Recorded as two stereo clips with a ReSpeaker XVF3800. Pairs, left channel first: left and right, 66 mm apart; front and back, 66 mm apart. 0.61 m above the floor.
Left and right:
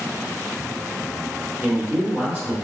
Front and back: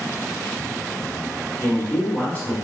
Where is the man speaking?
40° right, 1.7 m.